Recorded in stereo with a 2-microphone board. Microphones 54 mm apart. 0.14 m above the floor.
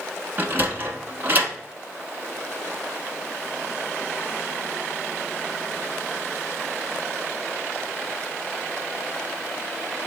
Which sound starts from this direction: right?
A sliding door, at 0.4 s.